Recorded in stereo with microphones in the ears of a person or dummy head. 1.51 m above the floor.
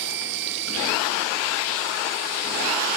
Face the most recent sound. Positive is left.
turn(degrees=-65)  # may be behind; listen again after turning